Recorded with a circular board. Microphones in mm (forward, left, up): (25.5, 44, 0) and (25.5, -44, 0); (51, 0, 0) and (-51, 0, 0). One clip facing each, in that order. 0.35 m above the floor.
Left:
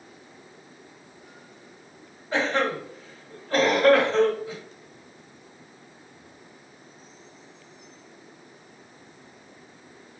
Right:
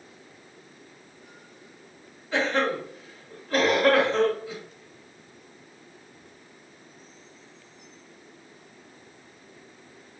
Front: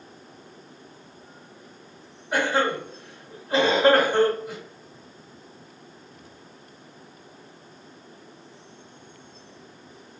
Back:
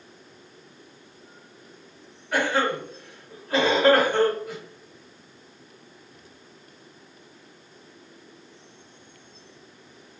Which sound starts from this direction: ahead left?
A cough, at 2.3 s.